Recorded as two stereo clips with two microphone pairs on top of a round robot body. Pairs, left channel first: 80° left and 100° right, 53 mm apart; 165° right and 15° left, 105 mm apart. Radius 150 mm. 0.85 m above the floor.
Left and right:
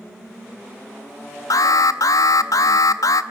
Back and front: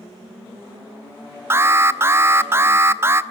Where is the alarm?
85° left, 0.8 m.